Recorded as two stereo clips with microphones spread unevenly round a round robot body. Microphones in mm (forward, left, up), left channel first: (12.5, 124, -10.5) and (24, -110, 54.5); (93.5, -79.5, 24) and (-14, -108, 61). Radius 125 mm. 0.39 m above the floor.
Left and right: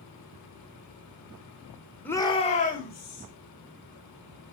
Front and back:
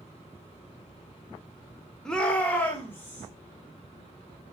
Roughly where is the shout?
Ahead left.